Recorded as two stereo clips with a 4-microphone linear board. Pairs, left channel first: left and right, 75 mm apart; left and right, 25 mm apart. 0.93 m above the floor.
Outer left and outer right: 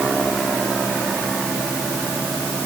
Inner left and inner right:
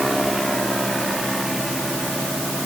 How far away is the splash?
I don't hear a splash.